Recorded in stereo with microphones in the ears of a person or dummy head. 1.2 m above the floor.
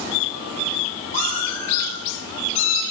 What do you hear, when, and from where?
1.1 s a cat meowing: 45° left (ahead or behind), 7.5 m; by 2.8 s 40° left (ahead or behind), 6.5 m